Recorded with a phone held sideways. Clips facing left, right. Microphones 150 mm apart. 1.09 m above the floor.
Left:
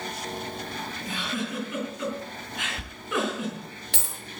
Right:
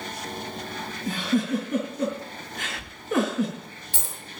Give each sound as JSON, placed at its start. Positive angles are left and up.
{"t": 1.1, "sound": "a giggle", "side_deg": -40, "distance_m": 4.5}
{"t": 2.8, "sound": "a dropped coin", "side_deg": 75, "distance_m": 7.0}